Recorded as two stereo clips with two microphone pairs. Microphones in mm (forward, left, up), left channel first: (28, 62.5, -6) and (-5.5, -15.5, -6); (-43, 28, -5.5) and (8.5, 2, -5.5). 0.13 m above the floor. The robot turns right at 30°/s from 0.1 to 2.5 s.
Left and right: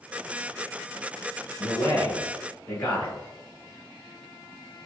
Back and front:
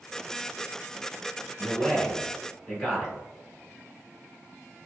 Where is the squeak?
I don't hear a squeak.